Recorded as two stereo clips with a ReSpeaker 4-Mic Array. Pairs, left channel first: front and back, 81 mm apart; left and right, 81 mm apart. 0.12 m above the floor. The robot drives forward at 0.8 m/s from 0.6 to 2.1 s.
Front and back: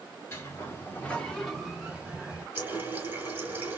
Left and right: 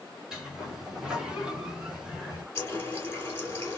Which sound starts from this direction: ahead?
A sliding door, at 0.3 s.